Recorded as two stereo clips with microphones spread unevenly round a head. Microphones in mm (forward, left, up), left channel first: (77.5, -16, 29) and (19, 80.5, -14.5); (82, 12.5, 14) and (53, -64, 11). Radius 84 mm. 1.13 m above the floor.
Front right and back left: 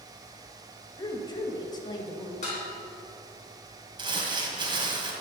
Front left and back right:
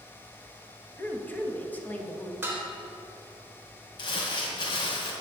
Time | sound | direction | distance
1.0 | a woman speaking | straight ahead | 1.5 m
2.4 | dishes clattering | 45° right | 3 m
4.0 | crumpling | 65° left | 2.0 m